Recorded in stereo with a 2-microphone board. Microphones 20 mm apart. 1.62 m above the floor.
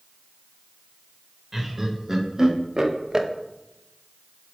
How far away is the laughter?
About 1.5 m.